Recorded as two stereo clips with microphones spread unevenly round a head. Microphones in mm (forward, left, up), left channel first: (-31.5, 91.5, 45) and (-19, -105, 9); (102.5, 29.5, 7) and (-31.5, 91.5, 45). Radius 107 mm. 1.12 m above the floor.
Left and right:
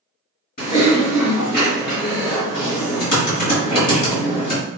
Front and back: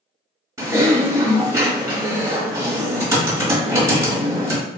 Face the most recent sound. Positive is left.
turn(degrees=100)